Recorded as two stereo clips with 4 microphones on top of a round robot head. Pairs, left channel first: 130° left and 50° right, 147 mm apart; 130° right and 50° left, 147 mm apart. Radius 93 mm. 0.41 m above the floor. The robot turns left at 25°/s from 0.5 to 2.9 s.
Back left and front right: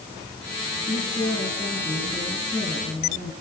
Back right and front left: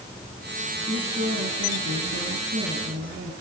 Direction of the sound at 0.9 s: 75° left.